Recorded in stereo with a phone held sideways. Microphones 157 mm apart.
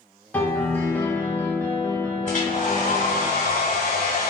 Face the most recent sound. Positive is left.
turn(degrees=55)  # may be behind; listen again after turning